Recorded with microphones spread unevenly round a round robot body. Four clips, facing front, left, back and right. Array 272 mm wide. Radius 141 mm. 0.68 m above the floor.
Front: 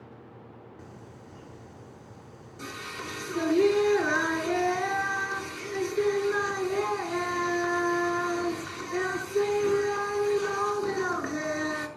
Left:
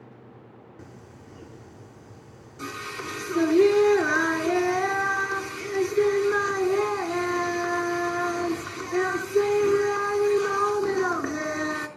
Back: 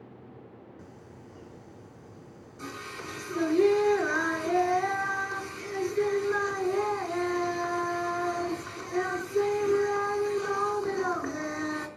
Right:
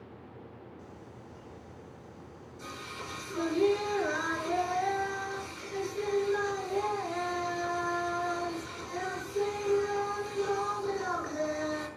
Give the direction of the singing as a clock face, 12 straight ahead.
10 o'clock.